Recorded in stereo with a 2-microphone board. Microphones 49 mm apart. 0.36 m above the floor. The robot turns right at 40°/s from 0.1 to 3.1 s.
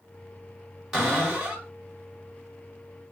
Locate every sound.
0.9 s a cupboard door: 10° right (ahead or behind), 1.9 m; by 1.7 s 30° right (ahead or behind), 1.9 m